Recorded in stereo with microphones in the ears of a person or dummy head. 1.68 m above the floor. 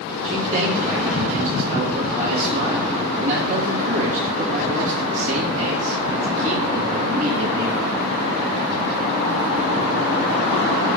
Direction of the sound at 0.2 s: 50° right (ahead or behind).